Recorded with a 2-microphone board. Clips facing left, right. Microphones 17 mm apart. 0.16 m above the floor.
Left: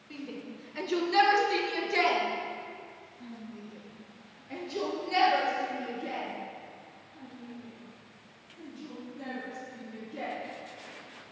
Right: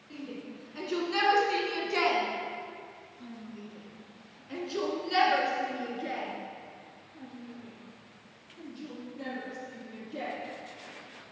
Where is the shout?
Centre (ahead or behind), 2 m; by 10.3 s 50° right (ahead or behind), 4.5 m.